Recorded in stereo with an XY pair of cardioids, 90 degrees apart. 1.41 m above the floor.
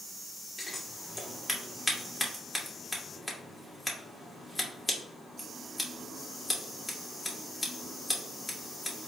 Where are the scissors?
15° left, 1.6 m.